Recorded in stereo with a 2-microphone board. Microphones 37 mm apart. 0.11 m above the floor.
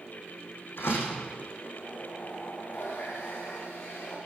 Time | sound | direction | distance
0.8 | a door slam | 75° left (ahead or behind) | 5 m
2.7 | a running tap | 65° left (ahead or behind) | 8.5 m